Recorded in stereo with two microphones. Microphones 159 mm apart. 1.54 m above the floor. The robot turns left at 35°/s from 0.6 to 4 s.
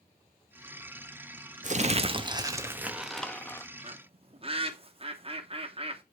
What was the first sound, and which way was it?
Crumpling, 125° right.